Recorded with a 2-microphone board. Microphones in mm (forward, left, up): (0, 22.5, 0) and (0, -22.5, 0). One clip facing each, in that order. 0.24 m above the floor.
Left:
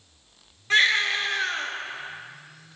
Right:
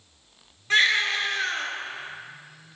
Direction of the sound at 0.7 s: Centre (ahead or behind).